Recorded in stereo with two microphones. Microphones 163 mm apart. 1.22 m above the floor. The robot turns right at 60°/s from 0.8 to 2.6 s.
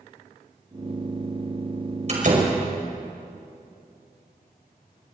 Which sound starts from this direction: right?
A door slam, at 2.1 s.